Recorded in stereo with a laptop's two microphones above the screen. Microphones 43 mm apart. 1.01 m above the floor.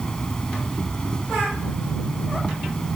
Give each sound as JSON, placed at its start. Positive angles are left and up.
{"t": 0.0, "sound": "an insect", "side_deg": 20}